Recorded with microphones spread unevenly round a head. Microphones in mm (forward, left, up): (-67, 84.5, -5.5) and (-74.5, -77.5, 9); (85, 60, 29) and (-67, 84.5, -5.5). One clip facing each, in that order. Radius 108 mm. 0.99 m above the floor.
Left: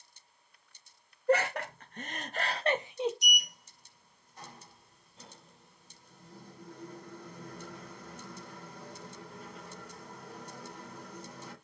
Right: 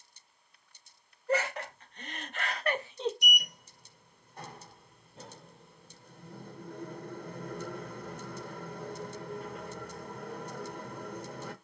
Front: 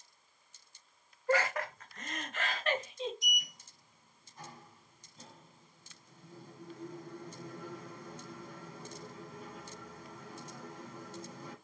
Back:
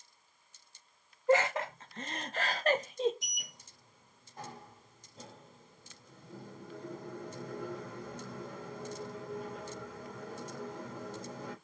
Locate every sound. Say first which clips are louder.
1.3 s laughter: left 3 dB, back 4 dB; 110° left, 1.5 m; by 3.1 s 165° left, 0.9 m
3.2 s a sliding door: right 2 dB, front 7 dB; 130° right, 0.8 m